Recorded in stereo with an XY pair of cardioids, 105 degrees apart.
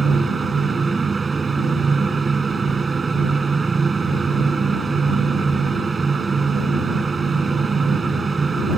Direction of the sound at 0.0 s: 30° right.